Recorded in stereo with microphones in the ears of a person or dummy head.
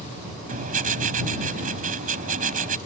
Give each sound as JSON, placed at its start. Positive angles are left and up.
{"t": 0.5, "sound": "writing", "side_deg": -45}